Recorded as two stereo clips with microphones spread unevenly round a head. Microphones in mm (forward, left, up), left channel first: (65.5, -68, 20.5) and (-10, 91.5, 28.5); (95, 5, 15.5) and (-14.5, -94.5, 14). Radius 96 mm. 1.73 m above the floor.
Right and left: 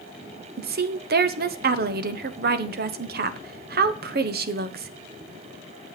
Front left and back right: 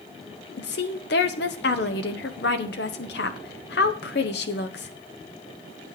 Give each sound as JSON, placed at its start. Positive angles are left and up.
{"t": 0.6, "sound": "a woman speaking", "azimuth_deg": 80, "distance_m": 0.9}